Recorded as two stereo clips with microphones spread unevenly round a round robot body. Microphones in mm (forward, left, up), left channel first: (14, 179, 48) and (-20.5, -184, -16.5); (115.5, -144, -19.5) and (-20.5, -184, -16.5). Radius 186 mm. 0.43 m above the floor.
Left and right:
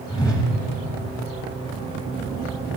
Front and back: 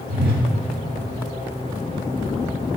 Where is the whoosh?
165° left, 1.0 m.